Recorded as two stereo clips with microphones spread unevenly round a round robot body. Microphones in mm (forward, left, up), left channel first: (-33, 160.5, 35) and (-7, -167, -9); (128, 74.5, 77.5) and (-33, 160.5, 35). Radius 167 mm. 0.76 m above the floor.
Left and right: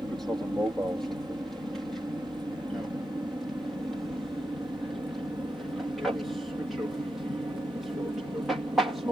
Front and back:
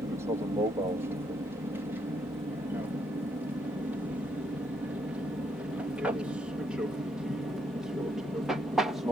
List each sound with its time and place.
0.0 s an aircraft: 165° right; by 9.1 s 155° right